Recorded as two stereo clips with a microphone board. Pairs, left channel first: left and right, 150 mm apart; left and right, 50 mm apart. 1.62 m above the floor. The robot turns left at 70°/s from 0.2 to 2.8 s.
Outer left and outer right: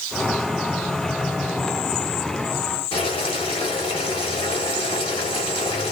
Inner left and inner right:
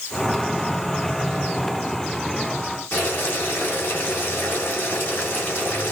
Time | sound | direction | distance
2.9 | boiling | 40° left (ahead or behind) | 2 m